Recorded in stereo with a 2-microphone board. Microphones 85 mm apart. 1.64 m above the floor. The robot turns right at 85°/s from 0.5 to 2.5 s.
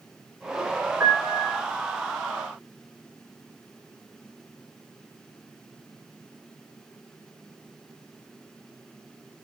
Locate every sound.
1.0 s a piano: 170° right, 3.5 m; by 1.6 s 120° right, 3.5 m